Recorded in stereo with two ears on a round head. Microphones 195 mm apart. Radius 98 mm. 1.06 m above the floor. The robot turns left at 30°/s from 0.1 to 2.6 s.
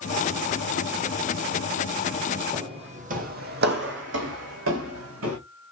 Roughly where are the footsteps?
Right.